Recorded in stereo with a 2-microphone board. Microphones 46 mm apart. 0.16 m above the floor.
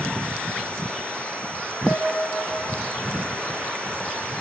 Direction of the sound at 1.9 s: 70° left (ahead or behind).